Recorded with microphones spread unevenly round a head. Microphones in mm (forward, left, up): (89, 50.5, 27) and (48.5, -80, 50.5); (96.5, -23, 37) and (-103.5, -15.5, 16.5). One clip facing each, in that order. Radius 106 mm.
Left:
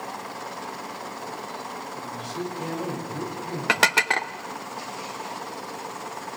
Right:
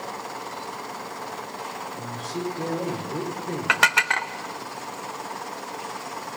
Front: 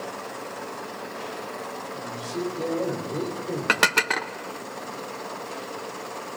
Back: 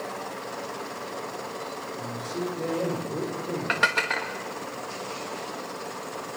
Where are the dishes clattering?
15° left, 1.0 m.